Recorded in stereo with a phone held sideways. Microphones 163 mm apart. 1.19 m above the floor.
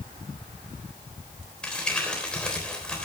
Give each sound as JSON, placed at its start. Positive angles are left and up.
{"t": 1.6, "sound": "crumpling", "side_deg": 5, "distance_m": 3.5}